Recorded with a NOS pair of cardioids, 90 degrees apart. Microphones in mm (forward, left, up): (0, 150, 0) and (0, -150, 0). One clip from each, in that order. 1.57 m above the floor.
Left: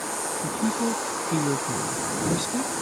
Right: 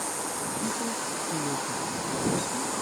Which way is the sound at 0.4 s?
60° left.